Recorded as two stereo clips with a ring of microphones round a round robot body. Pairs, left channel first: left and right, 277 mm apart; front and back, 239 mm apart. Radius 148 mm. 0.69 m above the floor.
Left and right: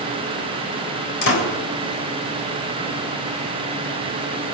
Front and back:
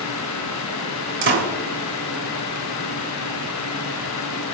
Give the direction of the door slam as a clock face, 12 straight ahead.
7 o'clock.